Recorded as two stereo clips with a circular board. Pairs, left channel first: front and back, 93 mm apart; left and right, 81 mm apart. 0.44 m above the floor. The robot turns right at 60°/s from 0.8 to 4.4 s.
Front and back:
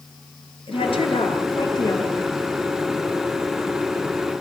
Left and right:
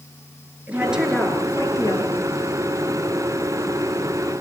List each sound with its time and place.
0.7 s a woman speaking: 20° right, 6.5 m; by 2.4 s 80° left, 6.5 m